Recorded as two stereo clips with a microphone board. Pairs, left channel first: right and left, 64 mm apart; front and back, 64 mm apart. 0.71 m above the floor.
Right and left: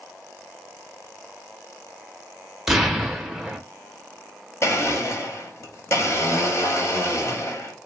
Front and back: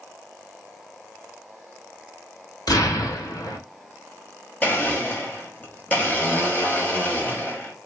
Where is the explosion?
5° left, 0.7 m.